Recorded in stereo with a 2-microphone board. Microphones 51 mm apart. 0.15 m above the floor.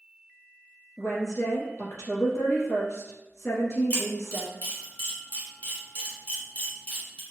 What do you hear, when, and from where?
1.0 s a woman speaking: 60° left (ahead or behind), 1.9 m
3.9 s a camera shutter: 35° left (ahead or behind), 1.9 m